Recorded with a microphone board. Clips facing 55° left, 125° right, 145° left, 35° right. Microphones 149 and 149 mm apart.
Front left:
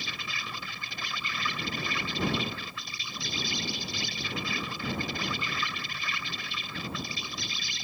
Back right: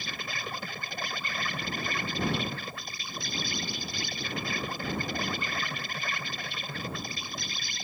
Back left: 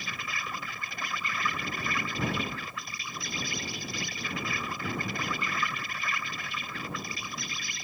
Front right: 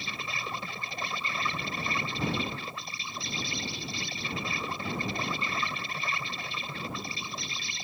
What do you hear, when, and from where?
0.0 s an insect: 90° right